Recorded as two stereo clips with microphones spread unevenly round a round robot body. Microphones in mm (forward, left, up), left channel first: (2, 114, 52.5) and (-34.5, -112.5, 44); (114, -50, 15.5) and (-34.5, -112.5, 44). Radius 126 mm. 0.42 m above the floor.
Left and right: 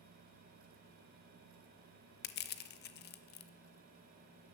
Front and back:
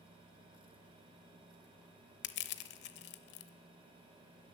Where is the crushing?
30° left, 0.6 m.